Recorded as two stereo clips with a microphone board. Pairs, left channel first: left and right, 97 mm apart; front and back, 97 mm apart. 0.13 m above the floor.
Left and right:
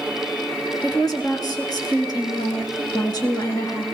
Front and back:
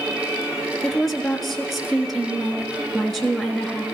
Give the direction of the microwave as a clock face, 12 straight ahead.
No microwave in this recording.